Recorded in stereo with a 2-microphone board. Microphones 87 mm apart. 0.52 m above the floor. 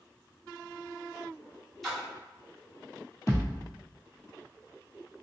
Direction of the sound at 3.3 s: 35° left (ahead or behind).